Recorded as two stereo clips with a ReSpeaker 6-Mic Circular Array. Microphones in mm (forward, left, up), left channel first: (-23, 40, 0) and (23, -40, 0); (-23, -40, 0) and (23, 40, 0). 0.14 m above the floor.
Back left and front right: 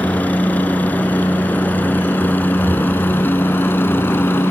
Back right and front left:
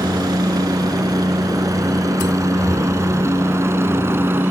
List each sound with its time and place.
0.0 s a helicopter: 55° left; by 4.5 s 90° left